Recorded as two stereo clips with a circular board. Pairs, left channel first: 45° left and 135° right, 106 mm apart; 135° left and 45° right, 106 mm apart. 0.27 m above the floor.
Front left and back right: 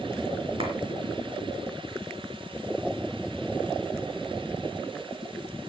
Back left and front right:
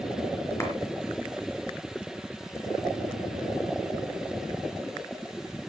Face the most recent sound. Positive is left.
turn(degrees=-160)